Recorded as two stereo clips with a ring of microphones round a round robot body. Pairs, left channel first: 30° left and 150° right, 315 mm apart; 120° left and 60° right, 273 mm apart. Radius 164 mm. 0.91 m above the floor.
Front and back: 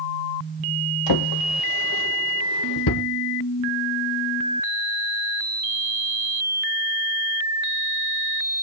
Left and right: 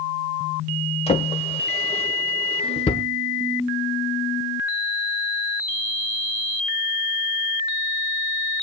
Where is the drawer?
50° left, 1.4 m.